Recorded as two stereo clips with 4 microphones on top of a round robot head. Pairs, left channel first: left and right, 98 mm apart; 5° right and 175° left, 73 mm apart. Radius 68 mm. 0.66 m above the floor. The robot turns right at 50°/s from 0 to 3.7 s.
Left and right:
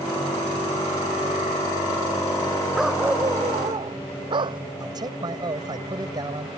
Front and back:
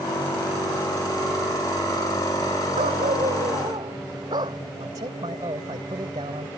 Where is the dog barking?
Straight behind; by 4.6 s 130° right.